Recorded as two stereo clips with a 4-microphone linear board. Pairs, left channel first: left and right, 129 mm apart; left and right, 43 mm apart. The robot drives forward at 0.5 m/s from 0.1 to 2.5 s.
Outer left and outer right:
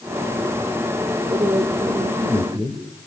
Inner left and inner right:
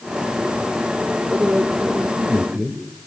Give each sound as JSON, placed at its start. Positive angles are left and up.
{"t": 1.3, "sound": "a man speaking", "side_deg": -40, "distance_m": 2.5}